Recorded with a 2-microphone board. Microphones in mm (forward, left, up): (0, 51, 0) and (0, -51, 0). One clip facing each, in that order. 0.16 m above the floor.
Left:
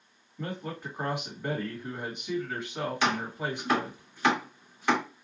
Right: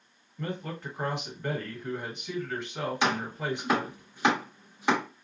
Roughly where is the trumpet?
I don't hear a trumpet.